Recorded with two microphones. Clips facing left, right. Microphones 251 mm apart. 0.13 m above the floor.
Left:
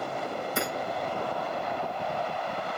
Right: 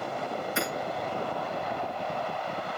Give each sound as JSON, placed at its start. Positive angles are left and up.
{"t": 0.6, "sound": "hammering", "side_deg": 40, "distance_m": 8.5}